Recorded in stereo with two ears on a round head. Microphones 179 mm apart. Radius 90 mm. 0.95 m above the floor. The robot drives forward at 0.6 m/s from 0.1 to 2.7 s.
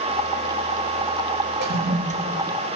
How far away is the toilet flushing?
About 0.5 m.